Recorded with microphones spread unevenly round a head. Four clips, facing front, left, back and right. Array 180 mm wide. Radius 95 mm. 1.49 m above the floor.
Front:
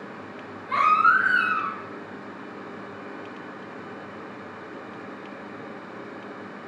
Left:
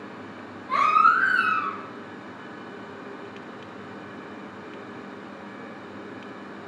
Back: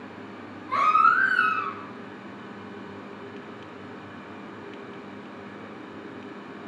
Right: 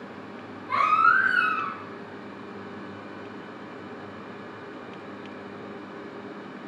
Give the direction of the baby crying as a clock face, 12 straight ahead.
1 o'clock.